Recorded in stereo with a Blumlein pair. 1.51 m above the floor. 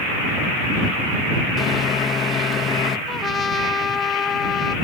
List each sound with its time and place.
1.6 s a microwave: 20° left
3.1 s a trumpet: 15° left